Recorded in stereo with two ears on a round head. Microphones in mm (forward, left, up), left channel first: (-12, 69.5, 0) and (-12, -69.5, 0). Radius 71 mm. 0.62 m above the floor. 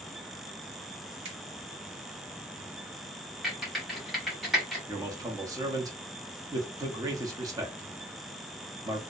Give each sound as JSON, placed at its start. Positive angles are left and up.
{"t": 1.2, "sound": "a finger snap", "side_deg": -40, "distance_m": 1.7}
{"t": 3.4, "sound": "typing on a keyboard", "side_deg": 0, "distance_m": 1.2}
{"t": 4.9, "sound": "a man speaking", "side_deg": -20, "distance_m": 0.6}